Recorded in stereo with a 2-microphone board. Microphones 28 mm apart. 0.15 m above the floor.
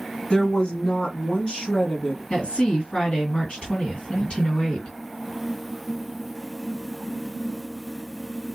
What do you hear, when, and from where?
0.3 s a woman speaking: 35° left (ahead or behind), 1.2 m
2.3 s a woman speaking: 40° left (ahead or behind), 2 m